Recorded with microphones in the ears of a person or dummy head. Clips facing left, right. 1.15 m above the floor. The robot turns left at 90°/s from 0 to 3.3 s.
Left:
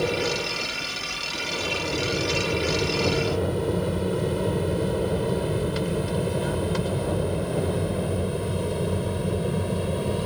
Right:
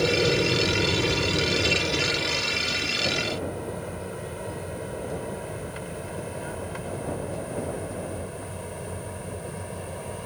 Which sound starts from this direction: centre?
An aircraft, at 0.0 s.